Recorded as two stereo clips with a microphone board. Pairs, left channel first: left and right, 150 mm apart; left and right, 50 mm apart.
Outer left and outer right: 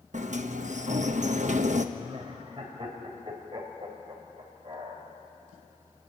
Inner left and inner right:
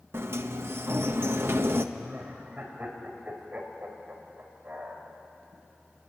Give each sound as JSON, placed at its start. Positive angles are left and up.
{"t": 0.1, "sound": "a sliding door", "side_deg": -60, "distance_m": 1.0}
{"t": 1.9, "sound": "laughter", "side_deg": -40, "distance_m": 4.5}